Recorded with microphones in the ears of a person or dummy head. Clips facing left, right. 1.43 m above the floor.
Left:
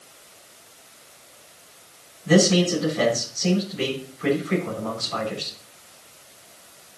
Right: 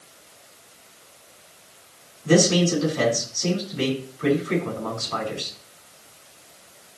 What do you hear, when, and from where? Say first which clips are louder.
2.2 s a man speaking: even; 65° right (ahead or behind), 6.5 m